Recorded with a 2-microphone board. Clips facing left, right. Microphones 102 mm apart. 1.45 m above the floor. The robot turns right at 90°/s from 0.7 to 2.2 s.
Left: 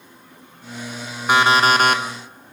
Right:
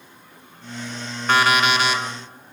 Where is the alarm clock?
15° left, 0.9 m; by 2.0 s 80° left, 0.9 m.